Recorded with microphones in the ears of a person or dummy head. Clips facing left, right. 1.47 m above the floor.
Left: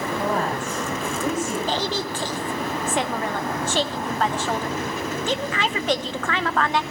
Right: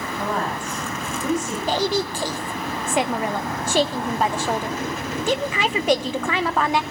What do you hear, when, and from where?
0.2 s a woman speaking: 5° left (ahead or behind), 9.5 m
1.7 s a woman speaking: 10° right (ahead or behind), 1.0 m